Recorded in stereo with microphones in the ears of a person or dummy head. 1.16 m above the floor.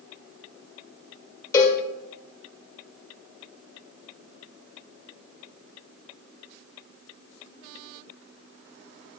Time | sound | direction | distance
1.5 | a cowbell | 20° left (ahead or behind) | 1.7 m